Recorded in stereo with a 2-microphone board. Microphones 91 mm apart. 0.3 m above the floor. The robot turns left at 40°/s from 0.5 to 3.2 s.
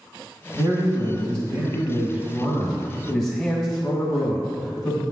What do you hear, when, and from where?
0.5 s a man speaking: 80° right, 1.8 m; by 5.0 s 175° left, 1.8 m